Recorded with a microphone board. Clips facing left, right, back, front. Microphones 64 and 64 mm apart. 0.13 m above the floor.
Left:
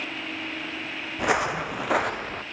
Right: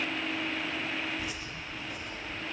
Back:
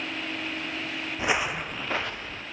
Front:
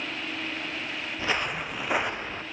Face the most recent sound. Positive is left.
turn(degrees=65)